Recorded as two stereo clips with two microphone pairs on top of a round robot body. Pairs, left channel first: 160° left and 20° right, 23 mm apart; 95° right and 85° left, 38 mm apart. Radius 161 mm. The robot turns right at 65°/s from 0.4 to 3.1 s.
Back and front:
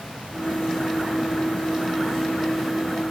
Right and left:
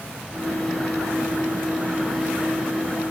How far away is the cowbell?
No cowbell in this recording.